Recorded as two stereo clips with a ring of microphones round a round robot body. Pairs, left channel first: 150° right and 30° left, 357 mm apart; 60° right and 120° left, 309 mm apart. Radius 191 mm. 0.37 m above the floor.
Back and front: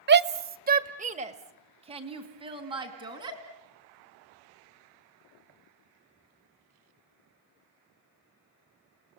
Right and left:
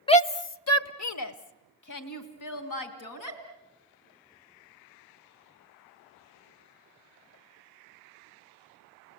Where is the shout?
Straight ahead, 0.9 m; by 3.4 s 50° right, 4 m.